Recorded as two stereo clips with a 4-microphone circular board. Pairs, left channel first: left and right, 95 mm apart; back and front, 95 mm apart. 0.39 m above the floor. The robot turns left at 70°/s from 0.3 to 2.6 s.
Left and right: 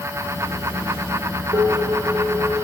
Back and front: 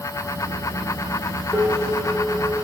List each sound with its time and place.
1.5 s dishes clattering: 90° right, 6.5 m; by 2.6 s 165° right, 6.5 m